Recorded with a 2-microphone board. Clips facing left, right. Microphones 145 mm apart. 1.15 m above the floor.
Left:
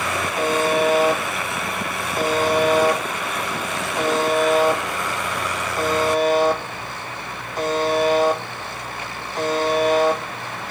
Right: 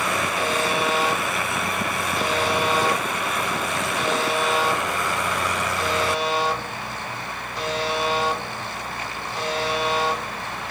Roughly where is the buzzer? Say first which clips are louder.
Left 8 dB; left.